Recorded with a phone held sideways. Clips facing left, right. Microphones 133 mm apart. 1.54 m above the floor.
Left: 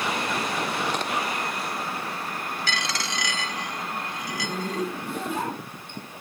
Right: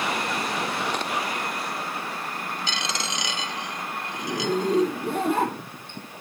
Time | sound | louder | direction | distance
2.7 | a dropped coin | even | 20° right (ahead or behind) | 1.0 m
4.1 | a zipper | right 6 dB | 55° right (ahead or behind) | 4 m